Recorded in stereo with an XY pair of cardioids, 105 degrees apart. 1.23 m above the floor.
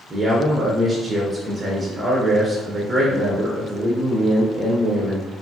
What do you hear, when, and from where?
0.1 s a man speaking: 15° right, 0.7 m